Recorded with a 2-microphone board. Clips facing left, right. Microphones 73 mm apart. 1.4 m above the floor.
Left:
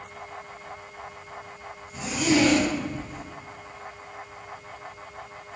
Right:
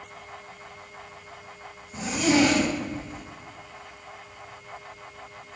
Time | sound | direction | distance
1.9 | a zipper | 45° right (ahead or behind) | 1.8 m